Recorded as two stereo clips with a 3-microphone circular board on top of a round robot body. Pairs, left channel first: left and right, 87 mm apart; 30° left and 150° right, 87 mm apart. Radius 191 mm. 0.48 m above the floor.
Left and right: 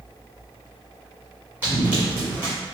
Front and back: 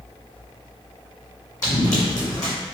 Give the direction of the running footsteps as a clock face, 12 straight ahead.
1 o'clock.